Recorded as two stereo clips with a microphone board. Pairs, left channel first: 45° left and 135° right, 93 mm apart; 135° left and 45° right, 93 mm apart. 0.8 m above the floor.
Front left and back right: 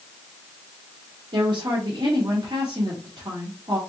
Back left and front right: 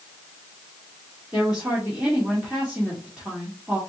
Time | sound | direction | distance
1.3 | a woman speaking | 120° right | 1.5 m